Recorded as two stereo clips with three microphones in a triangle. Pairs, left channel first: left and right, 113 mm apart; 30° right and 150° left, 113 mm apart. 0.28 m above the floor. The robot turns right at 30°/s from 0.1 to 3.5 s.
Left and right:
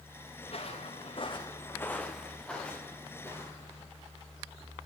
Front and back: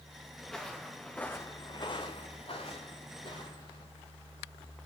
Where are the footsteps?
60° left, 1.9 m; by 3.8 s 20° left, 3.5 m.